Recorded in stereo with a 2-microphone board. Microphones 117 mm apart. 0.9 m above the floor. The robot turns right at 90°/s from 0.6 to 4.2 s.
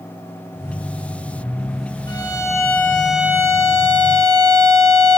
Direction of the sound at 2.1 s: 95° left.